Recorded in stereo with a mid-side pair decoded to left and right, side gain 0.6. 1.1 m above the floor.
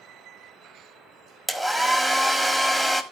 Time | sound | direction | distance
1.5 | a hair dryer | 10° right | 1.5 m